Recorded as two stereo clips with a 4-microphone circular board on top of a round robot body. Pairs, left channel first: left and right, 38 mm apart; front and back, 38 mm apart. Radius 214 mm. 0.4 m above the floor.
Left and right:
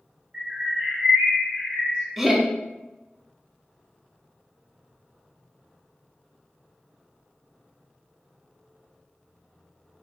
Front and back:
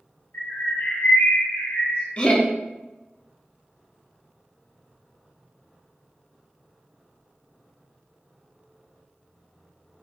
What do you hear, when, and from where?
0.3 s a bird: 40° right, 0.6 m
2.2 s laughter: 5° right, 0.8 m